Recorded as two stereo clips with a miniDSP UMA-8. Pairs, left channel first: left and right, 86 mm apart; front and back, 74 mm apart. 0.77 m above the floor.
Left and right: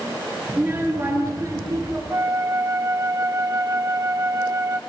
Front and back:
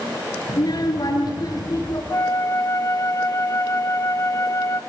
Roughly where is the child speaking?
Ahead right.